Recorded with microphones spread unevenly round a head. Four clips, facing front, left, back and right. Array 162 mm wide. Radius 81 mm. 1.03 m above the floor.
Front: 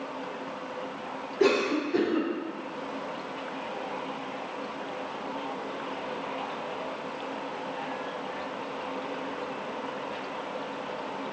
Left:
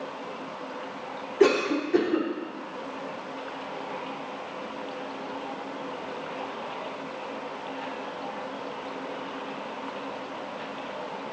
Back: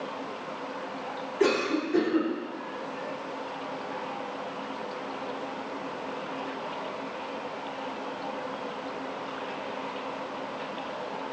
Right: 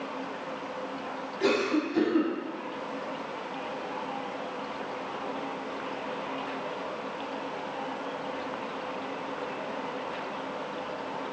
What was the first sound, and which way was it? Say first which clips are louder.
A cough: left 4 dB, front 1 dB; 90° left.